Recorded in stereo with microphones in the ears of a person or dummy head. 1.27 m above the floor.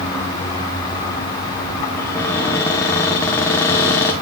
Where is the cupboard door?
15° left (ahead or behind), 0.9 m.